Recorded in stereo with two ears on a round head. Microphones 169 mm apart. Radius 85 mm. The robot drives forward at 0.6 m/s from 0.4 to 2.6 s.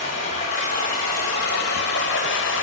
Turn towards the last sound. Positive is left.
turn(degrees=70)  # may be behind; listen again after turning